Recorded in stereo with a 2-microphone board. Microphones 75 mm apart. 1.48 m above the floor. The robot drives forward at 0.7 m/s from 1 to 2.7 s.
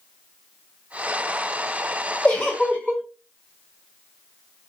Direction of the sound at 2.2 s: 25° left (ahead or behind).